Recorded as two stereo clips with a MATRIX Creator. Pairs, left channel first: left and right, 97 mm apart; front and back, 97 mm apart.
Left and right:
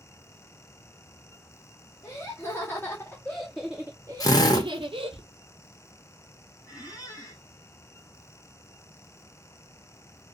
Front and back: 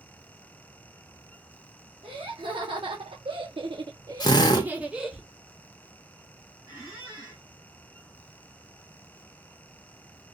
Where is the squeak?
135° left, 2 m.